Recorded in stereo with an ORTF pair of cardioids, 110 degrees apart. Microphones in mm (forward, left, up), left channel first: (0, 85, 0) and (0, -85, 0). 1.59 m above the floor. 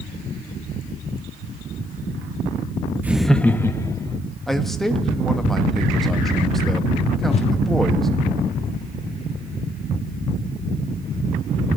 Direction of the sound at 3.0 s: 10° right.